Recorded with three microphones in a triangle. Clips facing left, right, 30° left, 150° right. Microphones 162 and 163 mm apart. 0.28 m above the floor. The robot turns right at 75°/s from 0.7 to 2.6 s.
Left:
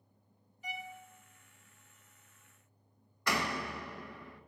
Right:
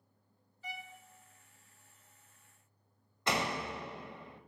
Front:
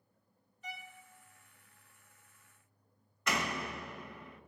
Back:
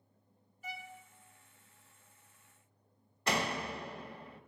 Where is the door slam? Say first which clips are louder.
Right 1 dB, back 2 dB; 135° right, 0.6 m.